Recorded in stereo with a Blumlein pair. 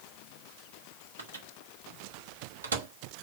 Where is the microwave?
70° right, 1.1 m.